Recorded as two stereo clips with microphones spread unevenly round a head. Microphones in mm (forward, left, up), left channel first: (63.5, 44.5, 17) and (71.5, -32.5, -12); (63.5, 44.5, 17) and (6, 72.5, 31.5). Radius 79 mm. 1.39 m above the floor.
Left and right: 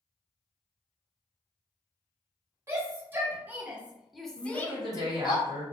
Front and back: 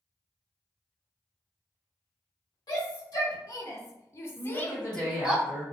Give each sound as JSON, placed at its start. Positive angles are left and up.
{"t": 2.7, "sound": "a shout", "azimuth_deg": -40, "distance_m": 1.4}
{"t": 4.4, "sound": "a woman speaking", "azimuth_deg": -95, "distance_m": 1.0}